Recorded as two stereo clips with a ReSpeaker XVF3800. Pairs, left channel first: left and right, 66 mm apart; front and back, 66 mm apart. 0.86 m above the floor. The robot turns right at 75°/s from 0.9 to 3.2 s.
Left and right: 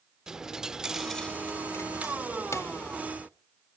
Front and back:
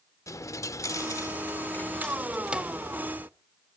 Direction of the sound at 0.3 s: 10° right.